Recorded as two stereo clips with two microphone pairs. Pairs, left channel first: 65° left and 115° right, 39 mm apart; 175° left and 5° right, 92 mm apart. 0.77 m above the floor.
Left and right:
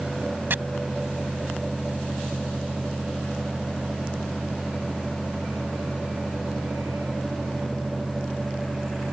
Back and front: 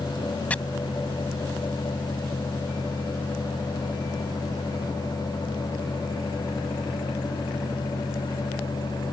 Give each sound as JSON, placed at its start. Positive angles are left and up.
{"t": 0.5, "sound": "chopping", "azimuth_deg": -110}